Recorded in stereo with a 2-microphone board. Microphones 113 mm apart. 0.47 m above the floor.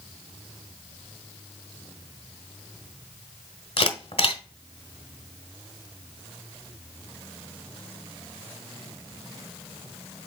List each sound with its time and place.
3.8 s a camera shutter: 55° left (ahead or behind), 1.3 m